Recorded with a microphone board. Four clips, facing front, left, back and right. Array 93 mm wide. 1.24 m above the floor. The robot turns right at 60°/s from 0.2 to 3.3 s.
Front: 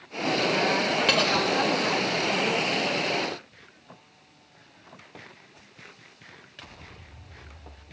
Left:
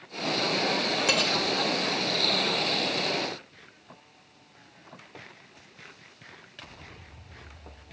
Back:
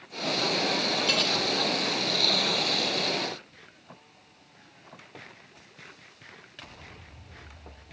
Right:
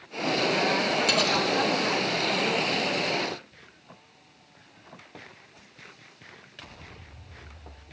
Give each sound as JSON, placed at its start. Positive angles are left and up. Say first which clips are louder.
{"t": 1.1, "sound": "cutlery clinking", "louder": "right 2 dB, front 5 dB", "azimuth_deg": 25, "distance_m": 1.1}